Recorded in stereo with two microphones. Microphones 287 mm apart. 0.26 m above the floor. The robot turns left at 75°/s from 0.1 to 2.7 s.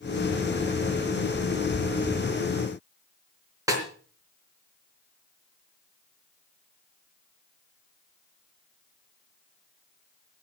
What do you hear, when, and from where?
3.7 s a snare drum: 10° right (ahead or behind), 3.5 m